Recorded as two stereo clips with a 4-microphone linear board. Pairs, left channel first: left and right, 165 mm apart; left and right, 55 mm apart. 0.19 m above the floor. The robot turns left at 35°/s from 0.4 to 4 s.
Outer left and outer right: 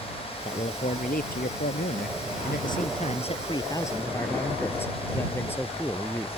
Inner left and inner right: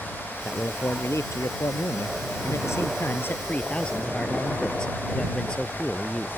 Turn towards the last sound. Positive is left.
turn(degrees=15)